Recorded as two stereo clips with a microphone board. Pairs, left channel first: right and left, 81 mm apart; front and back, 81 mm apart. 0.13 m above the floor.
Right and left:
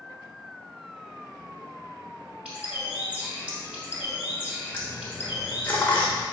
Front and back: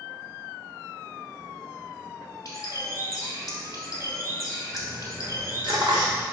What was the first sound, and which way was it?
A bird, 20° left.